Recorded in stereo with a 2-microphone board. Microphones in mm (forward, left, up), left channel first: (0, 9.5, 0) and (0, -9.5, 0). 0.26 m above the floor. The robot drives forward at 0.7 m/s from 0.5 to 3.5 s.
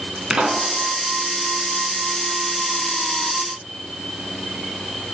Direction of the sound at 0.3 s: 45° right (ahead or behind).